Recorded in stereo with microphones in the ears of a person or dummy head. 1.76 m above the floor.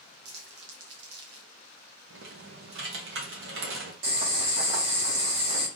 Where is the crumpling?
65° right (ahead or behind), 1.6 m.